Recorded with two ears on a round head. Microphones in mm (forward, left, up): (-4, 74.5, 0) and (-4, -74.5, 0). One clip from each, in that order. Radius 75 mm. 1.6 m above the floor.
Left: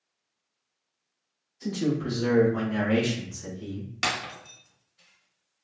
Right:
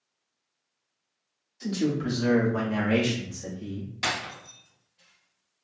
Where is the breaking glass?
30° left (ahead or behind), 1.0 m.